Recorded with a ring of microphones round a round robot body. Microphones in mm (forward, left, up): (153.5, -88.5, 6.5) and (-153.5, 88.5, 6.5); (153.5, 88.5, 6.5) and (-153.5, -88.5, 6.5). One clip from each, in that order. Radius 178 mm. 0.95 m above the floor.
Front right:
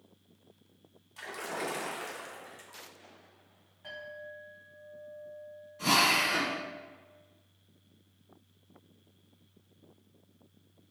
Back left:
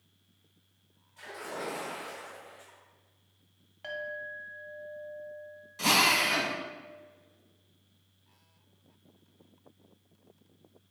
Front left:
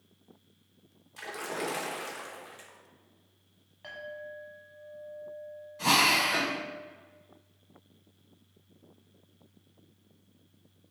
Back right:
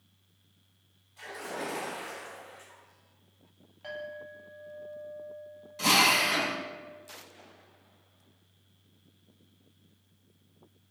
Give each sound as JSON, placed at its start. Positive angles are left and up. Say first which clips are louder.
{"t": 1.2, "sound": "a splash", "louder": "front right 2 dB, front left 2 dB", "azimuth_deg": 15, "distance_m": 0.9}
{"t": 3.8, "sound": "a clink", "louder": "back left 6 dB, back right 1 dB", "azimuth_deg": 120, "distance_m": 1.1}
{"t": 5.8, "sound": "a drill", "louder": "back left 1 dB, back right 1 dB", "azimuth_deg": 170, "distance_m": 1.0}